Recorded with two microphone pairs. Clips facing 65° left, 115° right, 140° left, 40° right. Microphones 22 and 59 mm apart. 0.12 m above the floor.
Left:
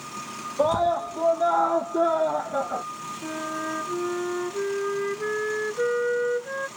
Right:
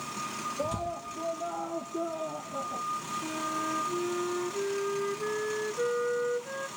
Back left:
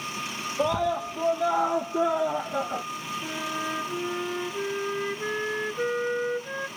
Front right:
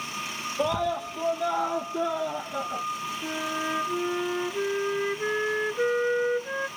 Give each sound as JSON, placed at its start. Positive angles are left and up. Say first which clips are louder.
{"t": 0.6, "sound": "a scream", "louder": "left 15 dB, back left 1 dB", "azimuth_deg": 55}
{"t": 3.2, "sound": "a flute", "louder": "left 5 dB, front right 2 dB", "azimuth_deg": 30}